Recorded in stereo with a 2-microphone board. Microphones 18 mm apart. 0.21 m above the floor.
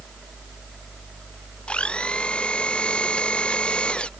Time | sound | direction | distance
1.7 | a blender | 85° left | ?